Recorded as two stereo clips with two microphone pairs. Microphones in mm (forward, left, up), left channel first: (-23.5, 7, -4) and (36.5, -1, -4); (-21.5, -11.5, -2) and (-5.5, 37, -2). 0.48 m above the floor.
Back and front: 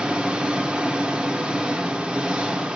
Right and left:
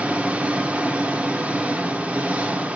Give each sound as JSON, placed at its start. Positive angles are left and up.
{"t": 0.0, "sound": "an engine running", "azimuth_deg": 45, "distance_m": 1.0}